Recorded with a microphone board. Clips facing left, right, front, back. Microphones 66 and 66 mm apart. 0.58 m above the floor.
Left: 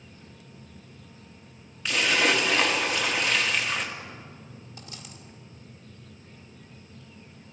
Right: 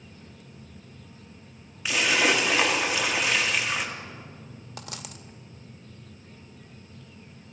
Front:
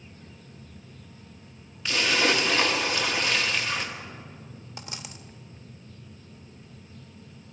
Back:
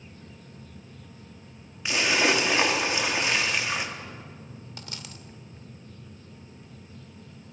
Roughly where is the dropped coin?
Right.